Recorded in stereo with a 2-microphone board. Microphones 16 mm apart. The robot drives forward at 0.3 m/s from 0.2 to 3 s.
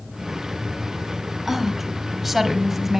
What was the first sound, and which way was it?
A woman speaking, 20° right (ahead or behind).